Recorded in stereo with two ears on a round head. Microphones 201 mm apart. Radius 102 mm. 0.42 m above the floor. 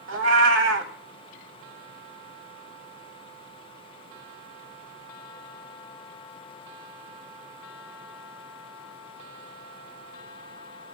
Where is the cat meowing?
55° right (ahead or behind), 1.1 m.